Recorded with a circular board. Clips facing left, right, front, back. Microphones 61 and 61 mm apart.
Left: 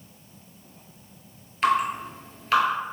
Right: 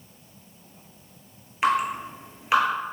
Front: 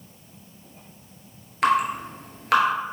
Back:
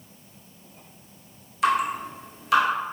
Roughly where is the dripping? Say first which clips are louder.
Left 1 dB, front 2 dB; ahead.